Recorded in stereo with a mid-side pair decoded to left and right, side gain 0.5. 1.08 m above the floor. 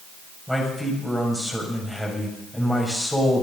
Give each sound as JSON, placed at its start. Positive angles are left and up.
{"t": 0.5, "sound": "a man speaking", "azimuth_deg": 5, "distance_m": 5.5}